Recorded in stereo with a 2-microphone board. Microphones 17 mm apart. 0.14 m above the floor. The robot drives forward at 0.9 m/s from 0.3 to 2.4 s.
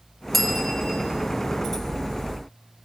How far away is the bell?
About 3 m.